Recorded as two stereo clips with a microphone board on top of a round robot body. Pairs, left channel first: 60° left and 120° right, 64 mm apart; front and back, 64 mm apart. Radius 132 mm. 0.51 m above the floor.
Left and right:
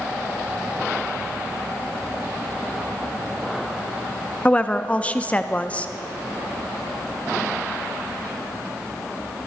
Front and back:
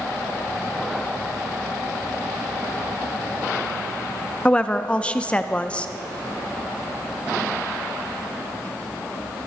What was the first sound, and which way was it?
A woman speaking, 35° left.